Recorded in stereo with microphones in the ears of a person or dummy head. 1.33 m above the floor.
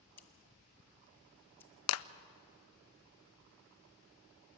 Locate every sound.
0.2 s scissors: 10° left (ahead or behind), 1.0 m
1.9 s a clap: 80° left, 0.6 m